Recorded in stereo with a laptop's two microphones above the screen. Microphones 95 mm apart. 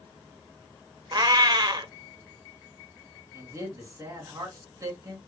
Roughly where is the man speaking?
Right.